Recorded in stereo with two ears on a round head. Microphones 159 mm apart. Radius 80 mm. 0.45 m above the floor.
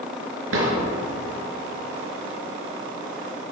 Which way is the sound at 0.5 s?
85° right.